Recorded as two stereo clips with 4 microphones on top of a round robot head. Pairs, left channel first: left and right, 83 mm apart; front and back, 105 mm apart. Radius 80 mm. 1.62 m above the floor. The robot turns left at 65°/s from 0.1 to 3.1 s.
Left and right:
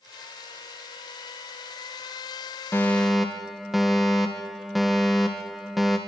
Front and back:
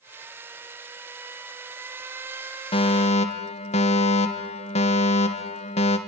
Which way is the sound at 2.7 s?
25° left.